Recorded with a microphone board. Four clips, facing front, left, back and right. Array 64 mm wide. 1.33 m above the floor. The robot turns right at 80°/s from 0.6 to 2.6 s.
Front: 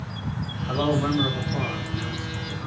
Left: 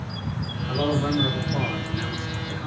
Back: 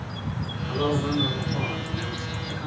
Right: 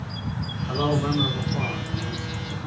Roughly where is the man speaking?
Ahead.